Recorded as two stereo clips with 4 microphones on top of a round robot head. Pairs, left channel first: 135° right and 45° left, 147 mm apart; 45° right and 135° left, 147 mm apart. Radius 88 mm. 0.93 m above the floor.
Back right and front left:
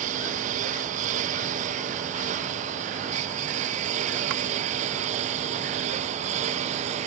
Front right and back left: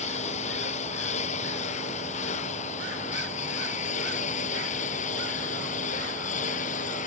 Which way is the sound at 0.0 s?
Straight ahead.